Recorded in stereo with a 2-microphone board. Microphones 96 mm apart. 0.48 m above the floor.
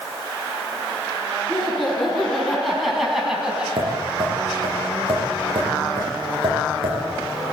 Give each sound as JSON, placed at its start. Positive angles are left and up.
{"t": 1.5, "sound": "laughter", "side_deg": 5, "distance_m": 6.0}
{"t": 3.8, "sound": "tapping", "side_deg": -60, "distance_m": 10.0}